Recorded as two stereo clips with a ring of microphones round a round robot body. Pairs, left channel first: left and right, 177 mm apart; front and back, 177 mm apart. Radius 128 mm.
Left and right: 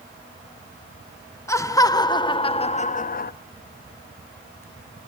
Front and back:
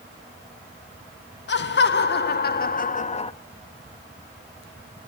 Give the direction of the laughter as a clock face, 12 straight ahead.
11 o'clock.